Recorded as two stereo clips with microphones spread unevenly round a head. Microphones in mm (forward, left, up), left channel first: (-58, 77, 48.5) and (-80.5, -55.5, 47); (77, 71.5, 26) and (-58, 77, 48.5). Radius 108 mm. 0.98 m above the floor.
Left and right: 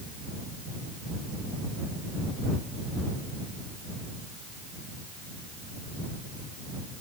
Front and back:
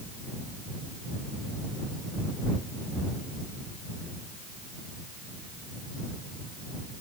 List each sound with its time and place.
Only background noise.